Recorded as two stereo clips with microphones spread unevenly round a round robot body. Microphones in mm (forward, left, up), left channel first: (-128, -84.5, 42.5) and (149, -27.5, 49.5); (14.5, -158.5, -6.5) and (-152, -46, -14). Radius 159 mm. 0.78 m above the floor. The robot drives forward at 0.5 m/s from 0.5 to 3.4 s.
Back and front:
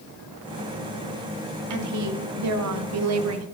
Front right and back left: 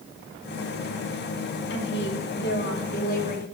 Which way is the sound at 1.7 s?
10° left.